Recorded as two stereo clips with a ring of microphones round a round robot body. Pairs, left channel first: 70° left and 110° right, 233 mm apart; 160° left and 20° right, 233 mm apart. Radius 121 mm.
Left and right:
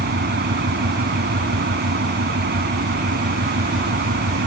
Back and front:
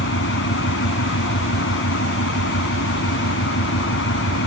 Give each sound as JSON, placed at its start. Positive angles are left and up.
{"t": 0.0, "sound": "an engine running", "azimuth_deg": -160}